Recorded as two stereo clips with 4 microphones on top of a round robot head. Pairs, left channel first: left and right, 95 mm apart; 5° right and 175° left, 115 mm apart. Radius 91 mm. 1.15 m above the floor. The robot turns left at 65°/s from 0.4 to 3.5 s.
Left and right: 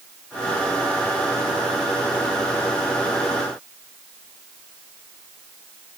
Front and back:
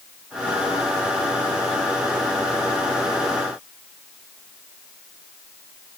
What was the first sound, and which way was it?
Only background noise.